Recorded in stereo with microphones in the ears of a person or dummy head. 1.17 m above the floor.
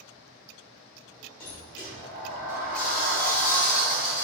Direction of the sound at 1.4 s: 45° left (ahead or behind).